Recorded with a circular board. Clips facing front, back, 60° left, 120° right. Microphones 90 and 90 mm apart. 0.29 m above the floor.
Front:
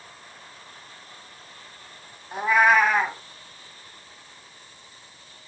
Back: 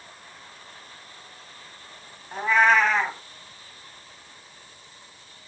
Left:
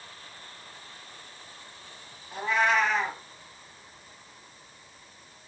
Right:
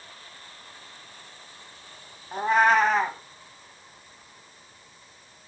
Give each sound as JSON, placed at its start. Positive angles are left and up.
{"t": 2.3, "sound": "a cat meowing", "azimuth_deg": -80, "distance_m": 1.0}